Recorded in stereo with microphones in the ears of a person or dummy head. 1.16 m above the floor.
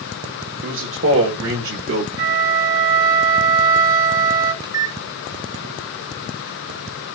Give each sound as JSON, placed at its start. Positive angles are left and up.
{"t": 0.6, "sound": "a man speaking", "side_deg": -55, "distance_m": 1.1}
{"t": 2.2, "sound": "a flute", "side_deg": -50, "distance_m": 1.6}
{"t": 4.6, "sound": "a microwave", "side_deg": -20, "distance_m": 0.5}